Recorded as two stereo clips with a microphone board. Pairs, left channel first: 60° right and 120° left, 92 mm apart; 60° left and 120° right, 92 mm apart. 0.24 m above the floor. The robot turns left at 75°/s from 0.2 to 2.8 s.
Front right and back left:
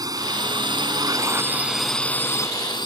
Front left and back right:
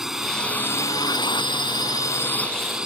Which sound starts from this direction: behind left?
A drone, at 0.0 s.